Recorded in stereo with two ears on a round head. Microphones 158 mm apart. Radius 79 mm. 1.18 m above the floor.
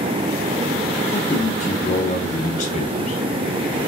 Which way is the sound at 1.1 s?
40° left (ahead or behind).